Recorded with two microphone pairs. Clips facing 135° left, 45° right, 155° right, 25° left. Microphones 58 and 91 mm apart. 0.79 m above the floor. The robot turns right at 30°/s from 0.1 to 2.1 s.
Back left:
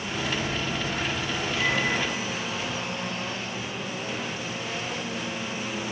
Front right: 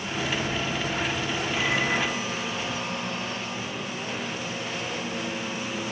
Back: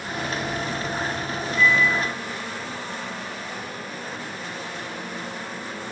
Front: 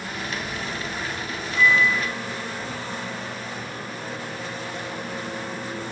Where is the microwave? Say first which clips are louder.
Even, front 1 dB; 25° left, 1.6 m; by 5.8 s 40° left, 1.6 m.